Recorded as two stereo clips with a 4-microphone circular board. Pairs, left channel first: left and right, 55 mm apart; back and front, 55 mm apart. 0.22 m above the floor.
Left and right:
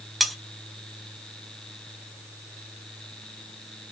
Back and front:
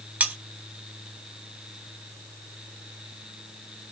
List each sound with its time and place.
0.2 s cutlery clinking: straight ahead, 0.6 m